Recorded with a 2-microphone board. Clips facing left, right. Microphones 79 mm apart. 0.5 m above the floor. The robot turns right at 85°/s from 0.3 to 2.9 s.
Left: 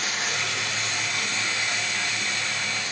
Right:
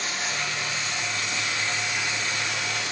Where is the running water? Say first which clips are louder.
Left 1 dB; 50° left, 1.7 m; by 2.9 s 85° right, 1.7 m.